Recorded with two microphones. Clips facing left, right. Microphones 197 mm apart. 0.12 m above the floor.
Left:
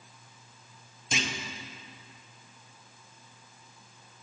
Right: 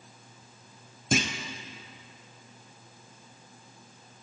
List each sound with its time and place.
1.1 s a clunk: 50° right (ahead or behind), 0.9 m